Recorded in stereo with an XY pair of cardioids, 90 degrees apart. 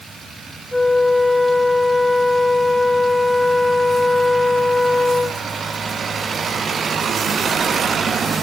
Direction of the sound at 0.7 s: 5° left.